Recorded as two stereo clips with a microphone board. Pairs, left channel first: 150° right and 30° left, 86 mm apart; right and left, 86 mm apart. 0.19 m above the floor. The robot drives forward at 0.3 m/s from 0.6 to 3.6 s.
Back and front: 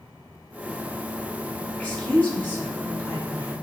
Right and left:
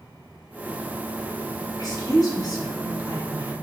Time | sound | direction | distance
1.8 | a woman speaking | 80° right | 1.5 m